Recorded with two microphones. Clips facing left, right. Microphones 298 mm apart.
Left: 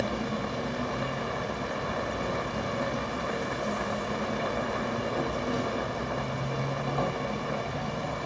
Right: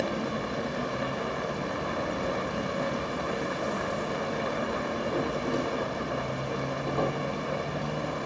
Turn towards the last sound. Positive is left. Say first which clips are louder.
# even
turn(degrees=-60)  # may be behind; listen again after turning